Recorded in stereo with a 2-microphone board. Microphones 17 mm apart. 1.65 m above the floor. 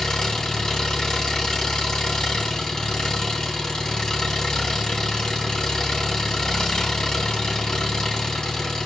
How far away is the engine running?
About 3.5 m.